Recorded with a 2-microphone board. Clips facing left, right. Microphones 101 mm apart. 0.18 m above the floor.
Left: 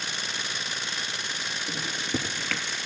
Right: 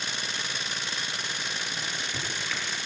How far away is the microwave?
About 2.5 m.